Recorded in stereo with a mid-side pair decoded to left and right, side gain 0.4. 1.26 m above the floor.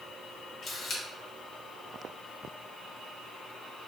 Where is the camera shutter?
55° left, 1.4 m.